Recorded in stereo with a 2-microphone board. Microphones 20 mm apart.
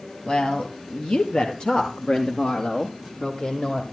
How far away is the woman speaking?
About 1.8 m.